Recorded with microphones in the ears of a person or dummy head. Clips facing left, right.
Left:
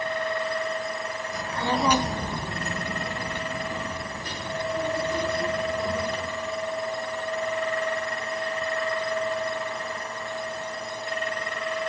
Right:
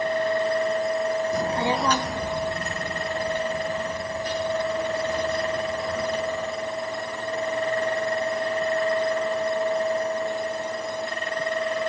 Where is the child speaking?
45° right (ahead or behind), 0.8 m; by 6.3 s 85° left, 5 m.